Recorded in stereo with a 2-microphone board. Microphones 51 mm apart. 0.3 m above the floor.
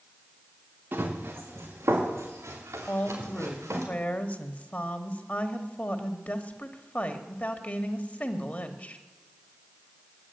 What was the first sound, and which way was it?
Running footsteps, 50° right (ahead or behind).